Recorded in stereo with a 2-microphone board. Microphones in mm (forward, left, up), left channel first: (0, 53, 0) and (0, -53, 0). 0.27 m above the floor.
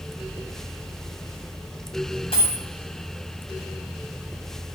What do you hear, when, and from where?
2.3 s a dropped coin: 60° left (ahead or behind), 3 m